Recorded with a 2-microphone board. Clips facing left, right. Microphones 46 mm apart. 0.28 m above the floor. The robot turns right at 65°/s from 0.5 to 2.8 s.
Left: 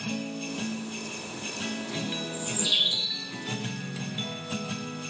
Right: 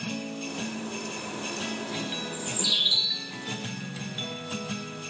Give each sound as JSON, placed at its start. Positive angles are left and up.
{"t": 2.3, "sound": "a bird", "azimuth_deg": 20, "distance_m": 3.5}